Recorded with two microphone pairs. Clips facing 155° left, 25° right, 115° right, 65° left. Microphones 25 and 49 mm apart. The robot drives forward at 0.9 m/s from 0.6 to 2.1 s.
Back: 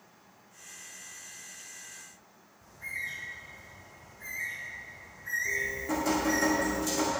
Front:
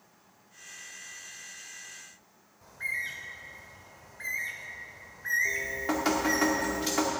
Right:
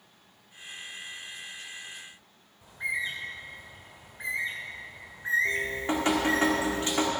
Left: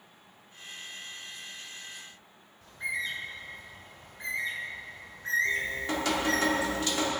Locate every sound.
2.6 s a bird: 45° right, 1.7 m
5.5 s dripping: 55° right, 2.0 m